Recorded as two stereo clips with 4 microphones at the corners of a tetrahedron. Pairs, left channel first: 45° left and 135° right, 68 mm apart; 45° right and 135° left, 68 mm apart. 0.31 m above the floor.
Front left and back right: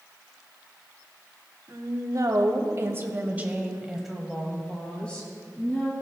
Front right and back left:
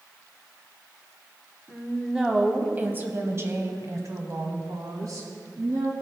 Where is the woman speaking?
140° right, 1.7 m; by 5.9 s 110° left, 2.5 m.